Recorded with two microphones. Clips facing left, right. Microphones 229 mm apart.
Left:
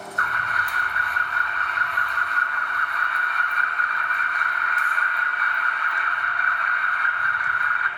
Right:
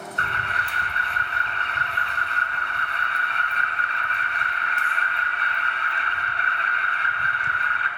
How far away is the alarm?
About 1.2 m.